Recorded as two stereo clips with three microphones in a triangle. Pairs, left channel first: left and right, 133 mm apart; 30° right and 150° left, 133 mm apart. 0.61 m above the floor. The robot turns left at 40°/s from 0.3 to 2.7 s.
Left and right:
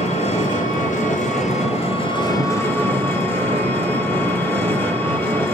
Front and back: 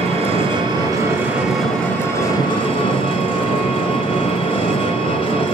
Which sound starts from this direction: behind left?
An engine running, at 0.0 s.